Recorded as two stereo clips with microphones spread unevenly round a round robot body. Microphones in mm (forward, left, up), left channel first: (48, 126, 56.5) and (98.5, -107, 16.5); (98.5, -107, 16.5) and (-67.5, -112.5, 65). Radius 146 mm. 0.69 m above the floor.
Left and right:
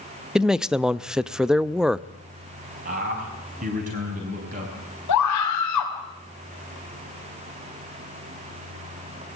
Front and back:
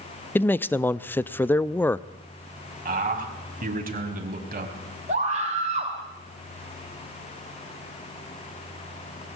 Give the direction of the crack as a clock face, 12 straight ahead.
I don't hear a crack.